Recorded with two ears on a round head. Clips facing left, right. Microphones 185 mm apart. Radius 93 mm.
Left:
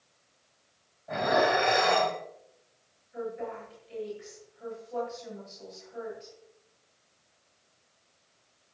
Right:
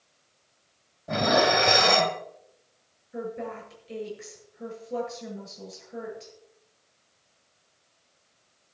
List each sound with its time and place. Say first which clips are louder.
1.1 s dishes clattering: right 3 dB; 55° right (ahead or behind), 1.5 m
3.1 s a woman speaking: right 2 dB; 70° right (ahead or behind), 9 m